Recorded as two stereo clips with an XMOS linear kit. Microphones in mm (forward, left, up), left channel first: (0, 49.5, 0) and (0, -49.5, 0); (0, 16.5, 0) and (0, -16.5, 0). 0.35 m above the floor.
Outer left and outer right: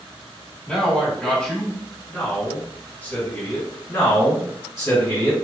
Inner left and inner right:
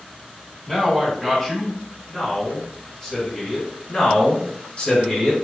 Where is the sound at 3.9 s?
30° left (ahead or behind), 1.8 m.